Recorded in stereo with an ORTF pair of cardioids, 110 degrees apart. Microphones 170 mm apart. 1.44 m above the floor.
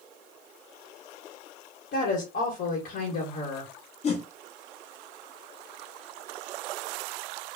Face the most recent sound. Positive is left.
turn(degrees=35)